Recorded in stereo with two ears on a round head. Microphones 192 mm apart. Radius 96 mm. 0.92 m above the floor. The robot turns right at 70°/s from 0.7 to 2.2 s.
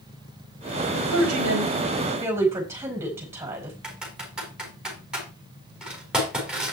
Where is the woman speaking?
100° right, 4.5 m; by 3.7 s 15° right, 4.5 m.